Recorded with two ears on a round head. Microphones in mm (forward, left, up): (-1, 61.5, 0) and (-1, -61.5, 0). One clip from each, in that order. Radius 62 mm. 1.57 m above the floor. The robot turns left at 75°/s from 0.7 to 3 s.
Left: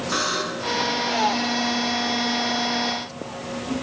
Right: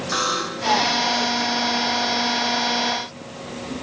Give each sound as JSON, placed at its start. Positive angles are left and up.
{"t": 0.1, "sound": "a buzzer", "side_deg": -10, "distance_m": 3.0}